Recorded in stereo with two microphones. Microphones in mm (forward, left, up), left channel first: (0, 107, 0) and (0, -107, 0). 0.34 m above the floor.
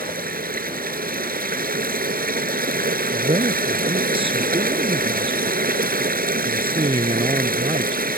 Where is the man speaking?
25° right (ahead or behind).